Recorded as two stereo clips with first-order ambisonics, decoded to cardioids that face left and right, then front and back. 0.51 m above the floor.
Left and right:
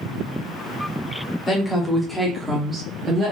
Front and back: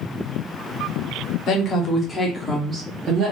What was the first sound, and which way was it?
A woman speaking, 25° left.